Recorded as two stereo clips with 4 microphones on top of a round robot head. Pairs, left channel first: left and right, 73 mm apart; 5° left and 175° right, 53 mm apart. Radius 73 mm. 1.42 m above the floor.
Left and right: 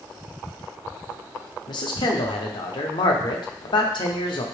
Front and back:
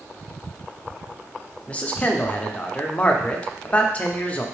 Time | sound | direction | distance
1.7 | a man speaking | 70° left | 0.6 m